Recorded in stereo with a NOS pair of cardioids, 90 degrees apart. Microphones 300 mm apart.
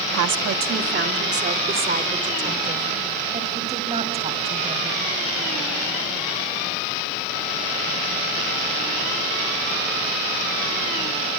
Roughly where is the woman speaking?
Ahead right.